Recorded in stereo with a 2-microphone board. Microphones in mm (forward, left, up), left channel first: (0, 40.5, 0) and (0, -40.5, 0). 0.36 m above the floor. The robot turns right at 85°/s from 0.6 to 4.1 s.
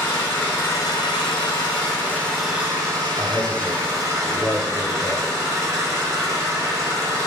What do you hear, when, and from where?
0.0 s an engine running: 25° left, 1.2 m; by 7.3 s 35° right, 1.2 m
3.2 s a man speaking: 10° right (ahead or behind), 0.8 m; by 5.3 s 25° left (ahead or behind), 0.8 m